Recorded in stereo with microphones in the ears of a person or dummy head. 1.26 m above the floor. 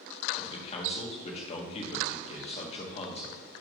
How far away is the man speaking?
About 1.3 m.